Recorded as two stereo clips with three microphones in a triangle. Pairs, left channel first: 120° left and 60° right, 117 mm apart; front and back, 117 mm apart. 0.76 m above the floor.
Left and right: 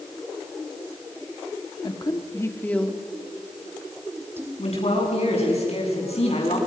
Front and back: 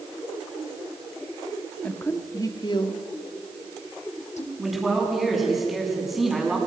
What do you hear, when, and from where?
1.8 s a woman speaking: 75° left, 2.0 m; by 4.5 s 10° left, 3 m
4.6 s a man speaking: 90° left, 8 m